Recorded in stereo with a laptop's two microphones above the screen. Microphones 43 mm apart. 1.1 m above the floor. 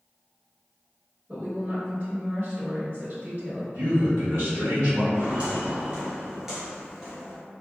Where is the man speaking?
70° right (ahead or behind), 1.0 m.